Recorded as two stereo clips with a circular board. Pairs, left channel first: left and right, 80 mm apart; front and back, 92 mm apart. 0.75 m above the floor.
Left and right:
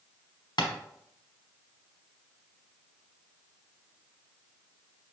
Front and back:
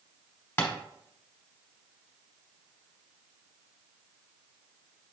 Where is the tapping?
65° left, 1.0 m.